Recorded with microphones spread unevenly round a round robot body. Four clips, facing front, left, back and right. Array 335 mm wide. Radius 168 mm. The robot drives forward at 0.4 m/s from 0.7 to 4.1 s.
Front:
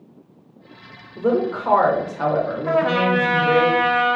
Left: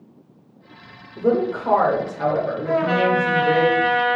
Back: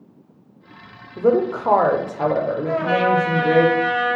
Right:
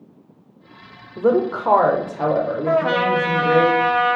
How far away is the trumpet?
About 1.4 m.